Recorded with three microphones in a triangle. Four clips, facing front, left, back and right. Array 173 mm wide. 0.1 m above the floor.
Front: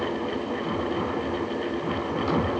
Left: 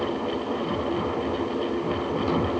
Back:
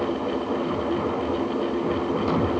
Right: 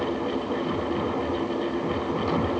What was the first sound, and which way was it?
Only background noise.